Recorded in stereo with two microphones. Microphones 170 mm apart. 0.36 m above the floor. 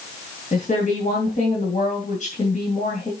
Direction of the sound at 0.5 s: 50° left (ahead or behind).